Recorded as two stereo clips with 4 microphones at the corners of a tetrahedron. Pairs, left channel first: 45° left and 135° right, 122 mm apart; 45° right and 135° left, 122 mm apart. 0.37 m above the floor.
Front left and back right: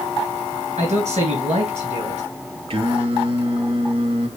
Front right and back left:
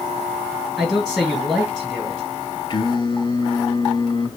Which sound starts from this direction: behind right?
A man speaking, at 0.8 s.